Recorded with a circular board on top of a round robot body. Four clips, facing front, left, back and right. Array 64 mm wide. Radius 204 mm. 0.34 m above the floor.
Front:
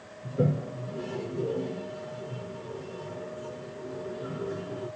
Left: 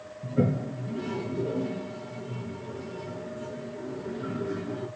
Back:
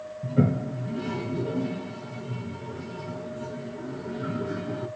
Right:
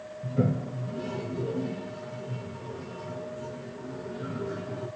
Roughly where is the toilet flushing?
Behind.